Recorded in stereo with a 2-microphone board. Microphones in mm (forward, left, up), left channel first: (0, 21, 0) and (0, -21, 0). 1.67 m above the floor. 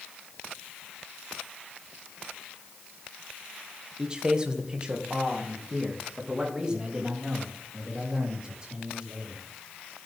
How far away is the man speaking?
About 1.5 m.